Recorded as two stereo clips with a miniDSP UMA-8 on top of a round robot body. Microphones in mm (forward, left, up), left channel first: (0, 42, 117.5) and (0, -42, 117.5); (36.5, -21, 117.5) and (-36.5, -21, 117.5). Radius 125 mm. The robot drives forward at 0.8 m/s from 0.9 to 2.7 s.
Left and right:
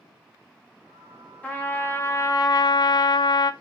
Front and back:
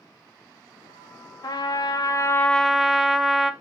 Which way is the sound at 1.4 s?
20° left.